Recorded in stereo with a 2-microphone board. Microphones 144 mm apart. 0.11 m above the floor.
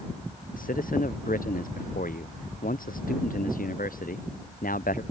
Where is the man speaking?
85° left.